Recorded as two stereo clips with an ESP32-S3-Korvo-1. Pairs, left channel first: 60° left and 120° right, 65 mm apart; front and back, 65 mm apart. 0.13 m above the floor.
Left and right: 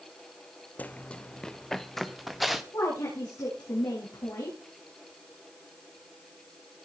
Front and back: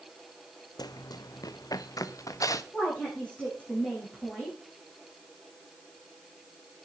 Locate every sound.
0.8 s running footsteps: 5° right, 0.6 m; by 2.6 s 30° right, 1.5 m
2.7 s a woman speaking: 70° left, 8 m